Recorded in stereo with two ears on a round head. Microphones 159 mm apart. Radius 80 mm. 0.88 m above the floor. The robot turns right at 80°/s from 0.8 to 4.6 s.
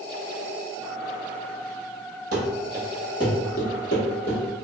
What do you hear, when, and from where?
2.3 s running footsteps: 50° right (ahead or behind), 1.5 m; by 4.4 s 30° left (ahead or behind), 1.6 m